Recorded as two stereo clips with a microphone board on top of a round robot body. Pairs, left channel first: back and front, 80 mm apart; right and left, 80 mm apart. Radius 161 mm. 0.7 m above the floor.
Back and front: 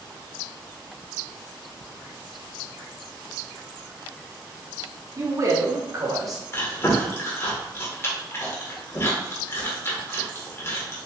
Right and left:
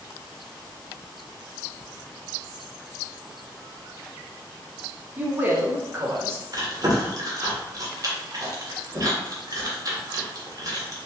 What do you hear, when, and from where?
5.2 s a man speaking: 30° left, 1.4 m; by 6.4 s 35° left, 2.0 m
6.5 s chewing: 125° left, 1.7 m